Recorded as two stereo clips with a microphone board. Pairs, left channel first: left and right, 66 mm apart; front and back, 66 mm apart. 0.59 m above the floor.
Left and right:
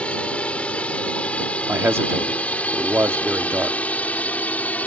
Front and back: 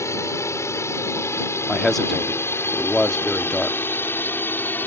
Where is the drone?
25° left; by 4.9 s 40° left.